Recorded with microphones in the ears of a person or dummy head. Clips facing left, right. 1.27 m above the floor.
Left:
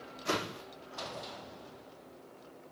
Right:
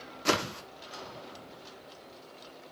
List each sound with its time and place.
0.2 s a whoosh: 60° right (ahead or behind), 0.8 m